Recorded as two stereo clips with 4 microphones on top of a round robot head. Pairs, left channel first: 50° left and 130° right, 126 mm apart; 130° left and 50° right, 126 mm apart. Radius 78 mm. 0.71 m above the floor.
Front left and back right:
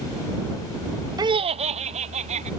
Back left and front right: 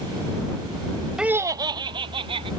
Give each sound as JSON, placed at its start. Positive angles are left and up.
{"t": 1.2, "sound": "laughter", "azimuth_deg": -130}